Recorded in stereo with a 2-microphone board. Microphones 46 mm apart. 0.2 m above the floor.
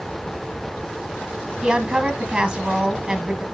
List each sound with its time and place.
1.6 s a woman speaking: 20° right (ahead or behind), 1.7 m